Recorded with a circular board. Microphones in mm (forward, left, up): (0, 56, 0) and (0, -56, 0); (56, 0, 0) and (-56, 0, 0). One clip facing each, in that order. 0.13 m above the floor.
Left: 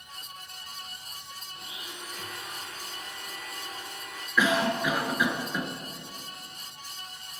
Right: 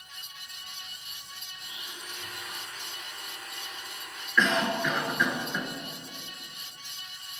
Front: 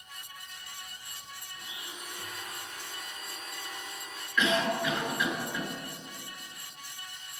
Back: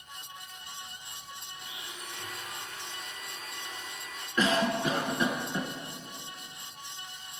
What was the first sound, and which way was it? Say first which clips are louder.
A blender: left 2 dB, front 1 dB; 80° left.